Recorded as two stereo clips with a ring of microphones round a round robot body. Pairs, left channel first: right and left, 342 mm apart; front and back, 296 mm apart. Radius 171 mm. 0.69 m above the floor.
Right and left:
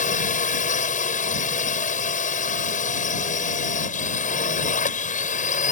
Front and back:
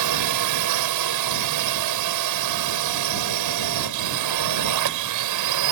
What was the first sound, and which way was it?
A drone, 155° right.